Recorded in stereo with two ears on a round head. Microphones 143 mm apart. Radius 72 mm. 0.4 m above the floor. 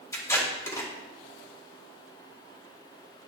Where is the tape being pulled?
20° left (ahead or behind), 2.5 m.